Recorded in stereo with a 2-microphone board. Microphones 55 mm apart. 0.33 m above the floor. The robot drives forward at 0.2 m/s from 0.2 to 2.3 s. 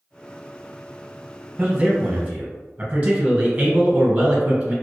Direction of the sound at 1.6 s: 30° right (ahead or behind).